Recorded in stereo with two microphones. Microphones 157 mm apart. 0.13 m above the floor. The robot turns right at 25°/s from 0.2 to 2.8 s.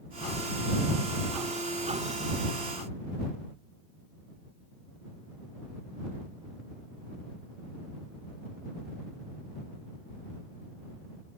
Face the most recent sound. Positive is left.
No sound to turn to.